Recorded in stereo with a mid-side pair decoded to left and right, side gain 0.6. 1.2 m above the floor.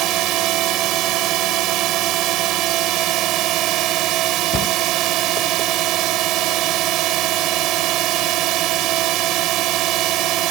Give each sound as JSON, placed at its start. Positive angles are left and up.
{"t": 0.0, "sound": "a drone", "azimuth_deg": -65}
{"t": 4.5, "sound": "a cupboard door", "azimuth_deg": 45}